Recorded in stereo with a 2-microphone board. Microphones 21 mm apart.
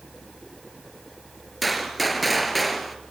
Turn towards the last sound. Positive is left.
turn(degrees=0)  # may be behind; listen again after turning